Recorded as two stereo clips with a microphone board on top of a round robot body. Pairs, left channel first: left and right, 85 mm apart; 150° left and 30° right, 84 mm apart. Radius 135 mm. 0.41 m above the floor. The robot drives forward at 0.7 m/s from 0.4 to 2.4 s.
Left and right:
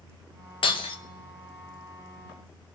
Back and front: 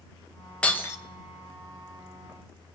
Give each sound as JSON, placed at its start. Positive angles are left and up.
{"t": 0.6, "sound": "breaking glass", "azimuth_deg": 70, "distance_m": 0.7}